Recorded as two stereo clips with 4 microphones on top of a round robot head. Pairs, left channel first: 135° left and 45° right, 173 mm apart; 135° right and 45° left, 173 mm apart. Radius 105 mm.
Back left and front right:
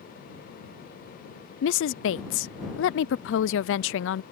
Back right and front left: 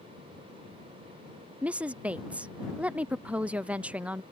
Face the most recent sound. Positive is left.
turn(degrees=130)